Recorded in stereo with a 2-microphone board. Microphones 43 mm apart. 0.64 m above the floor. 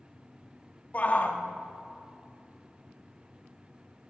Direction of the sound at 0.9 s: 35° left (ahead or behind).